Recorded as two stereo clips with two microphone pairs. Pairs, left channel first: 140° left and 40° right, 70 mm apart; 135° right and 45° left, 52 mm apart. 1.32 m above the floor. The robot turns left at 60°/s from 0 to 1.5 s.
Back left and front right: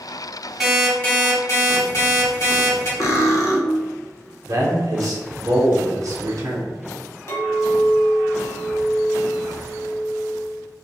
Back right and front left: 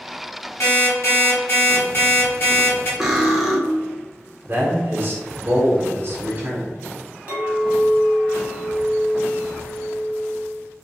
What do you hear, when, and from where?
0.6 s an alarm clock: 125° right, 1.5 m; by 2.9 s straight behind, 1.5 m
3.0 s cutlery clinking: 125° left, 0.5 m
4.5 s a man speaking: 5° right, 0.7 m
7.3 s a clink: 105° left, 1.0 m